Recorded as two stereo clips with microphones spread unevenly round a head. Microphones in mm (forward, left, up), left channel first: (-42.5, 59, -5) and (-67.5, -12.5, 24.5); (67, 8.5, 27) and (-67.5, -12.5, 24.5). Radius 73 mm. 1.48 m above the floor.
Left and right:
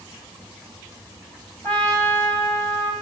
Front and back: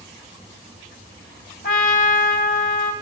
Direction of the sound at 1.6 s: 15° right.